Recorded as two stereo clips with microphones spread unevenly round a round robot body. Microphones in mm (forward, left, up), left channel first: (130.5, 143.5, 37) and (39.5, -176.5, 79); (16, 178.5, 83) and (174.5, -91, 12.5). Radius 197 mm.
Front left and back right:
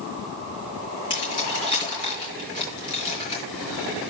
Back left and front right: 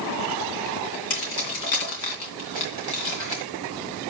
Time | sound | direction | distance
1.1 | keys jangling | 150° left | 3 m